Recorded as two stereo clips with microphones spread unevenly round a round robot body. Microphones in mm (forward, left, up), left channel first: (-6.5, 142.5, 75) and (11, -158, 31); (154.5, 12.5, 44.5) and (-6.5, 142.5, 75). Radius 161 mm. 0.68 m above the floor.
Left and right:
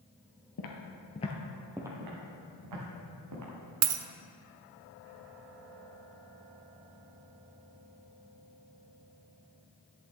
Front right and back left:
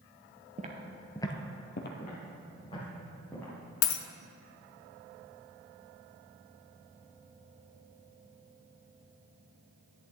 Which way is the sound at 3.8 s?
45° right.